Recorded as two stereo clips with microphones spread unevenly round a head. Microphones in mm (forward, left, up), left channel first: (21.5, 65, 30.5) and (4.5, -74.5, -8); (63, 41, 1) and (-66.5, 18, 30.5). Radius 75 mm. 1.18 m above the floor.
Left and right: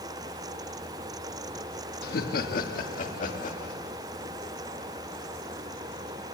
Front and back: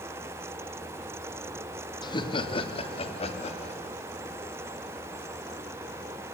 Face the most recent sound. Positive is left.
turn(degrees=45)